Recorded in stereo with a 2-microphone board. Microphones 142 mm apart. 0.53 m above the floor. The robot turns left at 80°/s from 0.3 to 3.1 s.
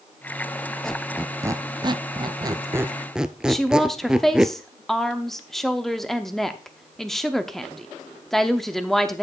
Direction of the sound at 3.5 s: Centre (ahead or behind).